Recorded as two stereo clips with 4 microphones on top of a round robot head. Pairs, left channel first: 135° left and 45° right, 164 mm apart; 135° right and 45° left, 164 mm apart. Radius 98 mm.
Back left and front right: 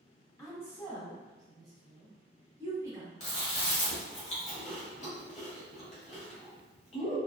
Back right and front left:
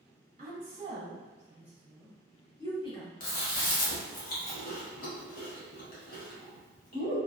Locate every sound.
0.4 s a woman speaking: 65° left, 1.1 m; by 3.1 s 105° right, 1.0 m
3.2 s chewing: 175° right, 0.8 m